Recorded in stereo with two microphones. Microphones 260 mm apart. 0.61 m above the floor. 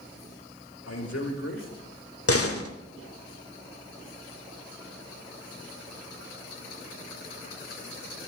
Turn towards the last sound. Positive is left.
turn(degrees=60)  # may be behind; listen again after turning